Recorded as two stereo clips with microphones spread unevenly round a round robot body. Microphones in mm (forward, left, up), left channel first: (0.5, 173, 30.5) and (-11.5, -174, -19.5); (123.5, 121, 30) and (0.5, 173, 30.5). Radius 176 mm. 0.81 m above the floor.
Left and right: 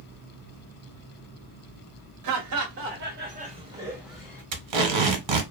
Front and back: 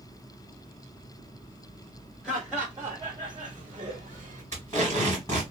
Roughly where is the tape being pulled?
Right.